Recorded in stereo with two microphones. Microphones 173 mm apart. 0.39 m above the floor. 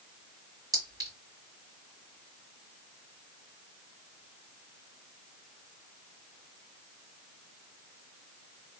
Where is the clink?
20° right (ahead or behind), 1.8 m.